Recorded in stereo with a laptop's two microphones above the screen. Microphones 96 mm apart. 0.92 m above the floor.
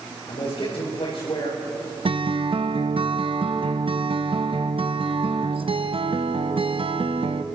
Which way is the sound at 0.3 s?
60° left (ahead or behind).